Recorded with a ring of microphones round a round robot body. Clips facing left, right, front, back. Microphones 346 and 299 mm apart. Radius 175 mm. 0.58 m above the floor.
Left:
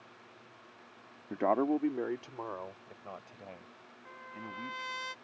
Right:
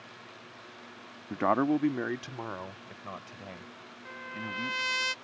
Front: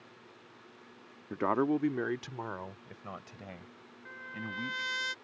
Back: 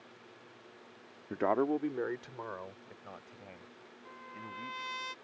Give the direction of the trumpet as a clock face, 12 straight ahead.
2 o'clock.